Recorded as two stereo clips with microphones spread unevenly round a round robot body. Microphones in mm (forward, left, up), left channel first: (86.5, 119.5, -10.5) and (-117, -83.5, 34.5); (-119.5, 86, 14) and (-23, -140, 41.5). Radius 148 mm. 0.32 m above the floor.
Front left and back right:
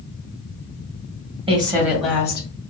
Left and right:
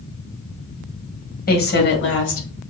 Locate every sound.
1.5 s a woman speaking: 150° left, 1.4 m; by 2.5 s 110° left, 1.4 m